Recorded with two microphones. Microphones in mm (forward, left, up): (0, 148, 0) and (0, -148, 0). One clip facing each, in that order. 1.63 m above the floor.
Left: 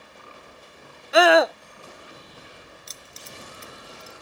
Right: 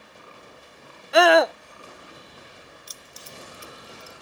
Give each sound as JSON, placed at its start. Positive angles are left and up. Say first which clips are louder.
{"t": 1.1, "sound": "a scream", "louder": "even", "side_deg": 0}
{"t": 2.9, "sound": "keys jangling", "louder": "left 1 dB", "side_deg": 25}